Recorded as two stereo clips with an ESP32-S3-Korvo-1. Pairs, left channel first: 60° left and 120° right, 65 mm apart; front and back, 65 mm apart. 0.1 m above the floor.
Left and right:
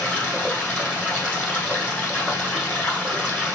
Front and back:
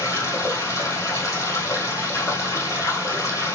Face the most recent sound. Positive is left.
turn(degrees=-5)